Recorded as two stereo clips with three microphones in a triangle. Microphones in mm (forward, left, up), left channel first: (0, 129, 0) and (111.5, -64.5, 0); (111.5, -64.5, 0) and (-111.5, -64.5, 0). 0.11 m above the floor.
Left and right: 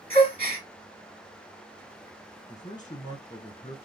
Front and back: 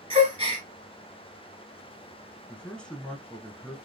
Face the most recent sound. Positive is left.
turn(degrees=80)